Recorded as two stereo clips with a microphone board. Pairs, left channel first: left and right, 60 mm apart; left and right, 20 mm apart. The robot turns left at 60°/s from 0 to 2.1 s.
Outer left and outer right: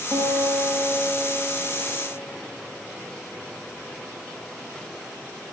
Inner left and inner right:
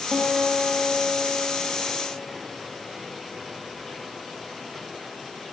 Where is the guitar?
100° right, 7 m; by 2.2 s 140° left, 7 m.